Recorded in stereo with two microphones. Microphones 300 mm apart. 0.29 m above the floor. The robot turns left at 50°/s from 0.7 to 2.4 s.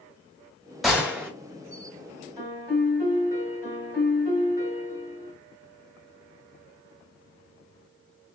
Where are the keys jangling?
No keys jangling in this recording.